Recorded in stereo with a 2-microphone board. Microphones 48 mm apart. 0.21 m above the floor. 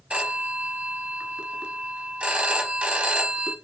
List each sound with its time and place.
0.1 s a phone ringing: 25° right (ahead or behind), 0.6 m